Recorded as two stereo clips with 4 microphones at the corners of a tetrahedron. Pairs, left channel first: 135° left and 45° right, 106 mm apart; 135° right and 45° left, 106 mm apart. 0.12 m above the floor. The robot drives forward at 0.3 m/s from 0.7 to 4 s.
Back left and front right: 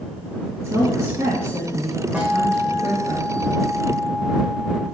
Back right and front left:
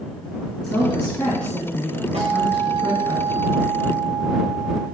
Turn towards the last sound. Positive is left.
turn(degrees=75)